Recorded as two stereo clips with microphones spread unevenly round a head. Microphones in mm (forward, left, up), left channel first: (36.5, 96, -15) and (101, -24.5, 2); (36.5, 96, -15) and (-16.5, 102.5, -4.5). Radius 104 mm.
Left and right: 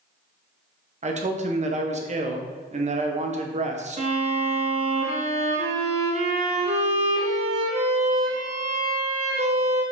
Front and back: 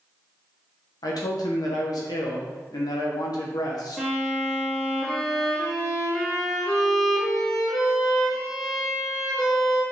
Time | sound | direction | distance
1.0 | a man speaking | 25° right | 1.3 m
4.0 | a violin | 100° right | 0.9 m